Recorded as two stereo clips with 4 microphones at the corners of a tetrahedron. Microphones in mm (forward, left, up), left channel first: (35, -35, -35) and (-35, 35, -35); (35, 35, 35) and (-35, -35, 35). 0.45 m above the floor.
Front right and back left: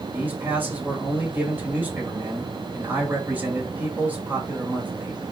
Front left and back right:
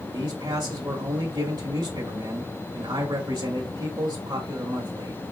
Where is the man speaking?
160° right, 1.9 m.